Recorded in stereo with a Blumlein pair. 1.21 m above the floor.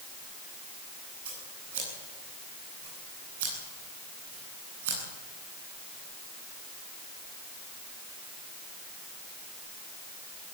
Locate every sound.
1.2 s scissors: 55° right, 10 m